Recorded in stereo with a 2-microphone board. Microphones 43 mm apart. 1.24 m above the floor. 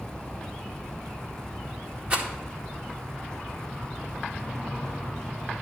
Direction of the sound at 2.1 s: 35° right (ahead or behind).